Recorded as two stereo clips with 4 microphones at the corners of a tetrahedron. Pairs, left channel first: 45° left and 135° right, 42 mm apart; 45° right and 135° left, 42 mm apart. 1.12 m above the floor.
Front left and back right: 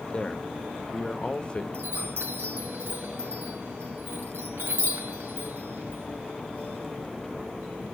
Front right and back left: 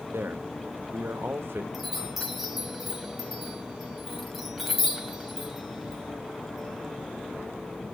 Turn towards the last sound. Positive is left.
turn(degrees=-135)